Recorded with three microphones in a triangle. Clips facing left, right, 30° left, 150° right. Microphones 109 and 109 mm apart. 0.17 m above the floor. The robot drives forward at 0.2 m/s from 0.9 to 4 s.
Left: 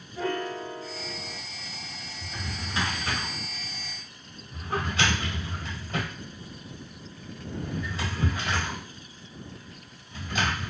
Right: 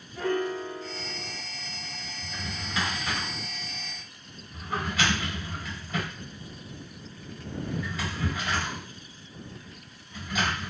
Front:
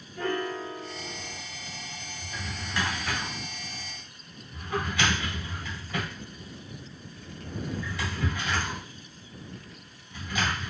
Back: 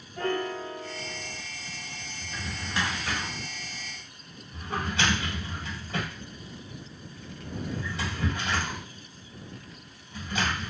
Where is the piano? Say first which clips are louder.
Right 2 dB, back 1 dB; 170° left, 1.2 m.